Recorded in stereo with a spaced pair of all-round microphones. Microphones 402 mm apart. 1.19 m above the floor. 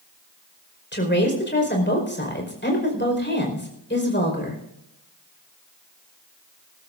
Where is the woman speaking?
25° left (ahead or behind), 5 m.